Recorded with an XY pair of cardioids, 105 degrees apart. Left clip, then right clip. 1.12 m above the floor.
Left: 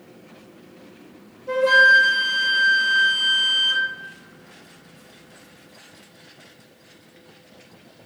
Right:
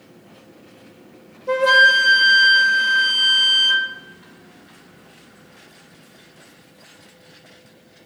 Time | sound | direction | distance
1.5 | a flute | 40° right | 0.7 m